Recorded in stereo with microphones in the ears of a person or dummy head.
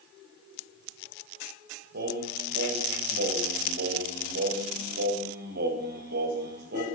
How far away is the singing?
About 5.5 m.